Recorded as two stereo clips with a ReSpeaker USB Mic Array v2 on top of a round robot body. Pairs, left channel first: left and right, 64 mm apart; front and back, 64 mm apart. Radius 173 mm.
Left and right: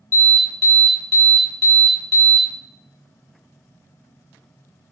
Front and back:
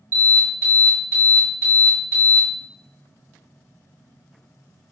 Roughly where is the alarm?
Behind left.